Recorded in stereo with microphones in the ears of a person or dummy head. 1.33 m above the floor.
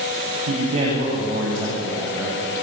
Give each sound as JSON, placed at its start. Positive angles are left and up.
{"t": 0.5, "sound": "a man speaking", "side_deg": -30, "distance_m": 7.5}